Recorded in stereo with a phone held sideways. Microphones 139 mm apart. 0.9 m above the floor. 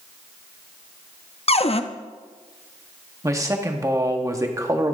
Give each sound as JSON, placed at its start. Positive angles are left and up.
{"t": 1.5, "sound": "a cupboard door", "side_deg": 50, "distance_m": 0.5}
{"t": 3.2, "sound": "a man speaking", "side_deg": -25, "distance_m": 1.3}